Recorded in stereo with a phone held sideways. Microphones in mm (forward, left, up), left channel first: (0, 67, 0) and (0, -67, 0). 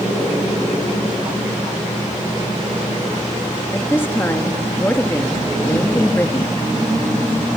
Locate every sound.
3.7 s a woman speaking: 15° left (ahead or behind), 1.5 m